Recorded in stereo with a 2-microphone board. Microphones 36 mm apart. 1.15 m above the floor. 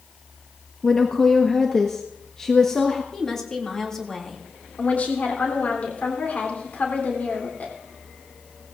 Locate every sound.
0.8 s a woman speaking: 10° left (ahead or behind), 1.3 m
3.1 s a woman speaking: 10° left (ahead or behind), 2.5 m
4.8 s a woman speaking: 45° left (ahead or behind), 3 m